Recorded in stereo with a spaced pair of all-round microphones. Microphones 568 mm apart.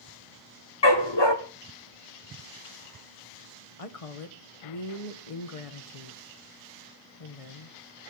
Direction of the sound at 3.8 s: 70° left (ahead or behind).